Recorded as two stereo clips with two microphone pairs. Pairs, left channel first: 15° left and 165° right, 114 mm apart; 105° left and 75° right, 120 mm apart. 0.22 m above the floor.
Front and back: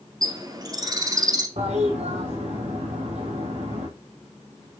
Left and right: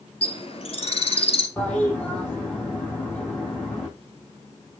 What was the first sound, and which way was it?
A bird, 140° left.